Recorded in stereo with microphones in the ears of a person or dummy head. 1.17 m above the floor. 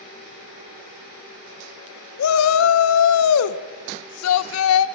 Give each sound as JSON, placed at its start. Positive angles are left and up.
{"t": 2.2, "sound": "a shout", "side_deg": 75, "distance_m": 0.5}